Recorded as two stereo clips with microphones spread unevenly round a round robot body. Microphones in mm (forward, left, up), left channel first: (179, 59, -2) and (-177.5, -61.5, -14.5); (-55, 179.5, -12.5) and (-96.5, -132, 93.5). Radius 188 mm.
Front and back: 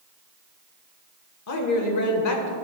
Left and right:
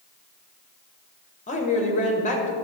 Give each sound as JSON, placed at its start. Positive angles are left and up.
{"t": 1.5, "sound": "a woman speaking", "azimuth_deg": 50, "distance_m": 1.6}